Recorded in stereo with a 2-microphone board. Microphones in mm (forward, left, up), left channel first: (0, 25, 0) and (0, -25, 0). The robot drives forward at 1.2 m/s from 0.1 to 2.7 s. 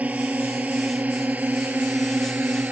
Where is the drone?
30° right (ahead or behind); by 2.7 s 35° right (ahead or behind).